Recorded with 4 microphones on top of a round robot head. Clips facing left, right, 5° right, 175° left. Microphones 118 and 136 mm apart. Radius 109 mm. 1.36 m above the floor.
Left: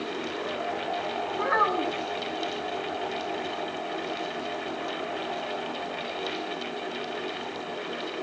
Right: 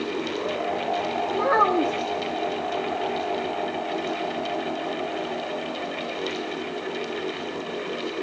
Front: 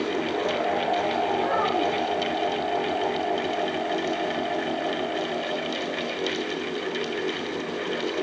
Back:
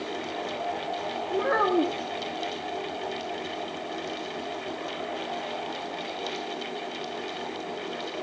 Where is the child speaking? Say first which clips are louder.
Right 5 dB, even; 140° right, 1.5 m.